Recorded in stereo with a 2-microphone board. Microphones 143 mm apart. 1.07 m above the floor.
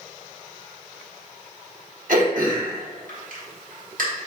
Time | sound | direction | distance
2.1 | throat clearing | 70° right (ahead or behind) | 1.4 m